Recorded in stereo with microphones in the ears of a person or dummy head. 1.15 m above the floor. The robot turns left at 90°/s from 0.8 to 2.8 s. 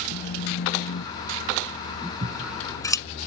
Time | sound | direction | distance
0.1 | a phone buzzing | 100° left | ?
2.2 | scissors | 35° right (ahead or behind) | ?